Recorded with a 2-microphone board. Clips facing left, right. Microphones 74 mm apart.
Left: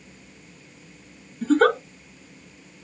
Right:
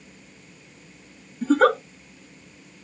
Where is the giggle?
5° right (ahead or behind), 0.8 m.